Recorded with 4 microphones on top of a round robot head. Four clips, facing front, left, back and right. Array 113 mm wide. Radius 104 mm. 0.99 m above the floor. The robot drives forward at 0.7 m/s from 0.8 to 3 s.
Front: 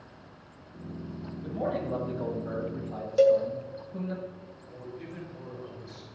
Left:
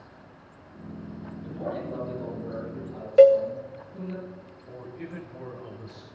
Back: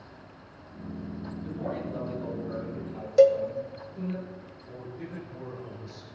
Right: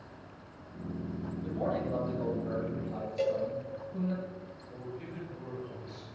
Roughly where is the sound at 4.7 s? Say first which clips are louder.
Left 4 dB, back 2 dB; left.